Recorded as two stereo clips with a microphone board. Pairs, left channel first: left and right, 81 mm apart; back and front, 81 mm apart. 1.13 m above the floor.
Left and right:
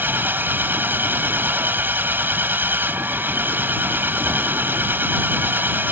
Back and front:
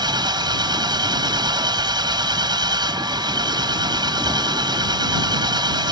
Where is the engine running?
25° right.